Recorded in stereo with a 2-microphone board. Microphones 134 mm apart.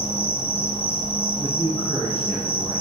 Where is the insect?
45° left (ahead or behind), 1.2 m.